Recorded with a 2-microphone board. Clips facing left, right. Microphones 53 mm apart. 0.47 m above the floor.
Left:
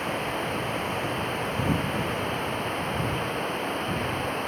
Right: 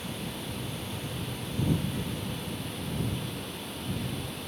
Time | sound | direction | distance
0.0 | running water | 50° left (ahead or behind) | ?